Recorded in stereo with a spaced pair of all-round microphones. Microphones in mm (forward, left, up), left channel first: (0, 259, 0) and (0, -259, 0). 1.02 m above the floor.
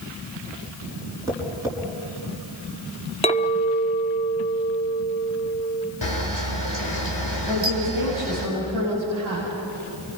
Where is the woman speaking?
75° right (ahead or behind), 7 m.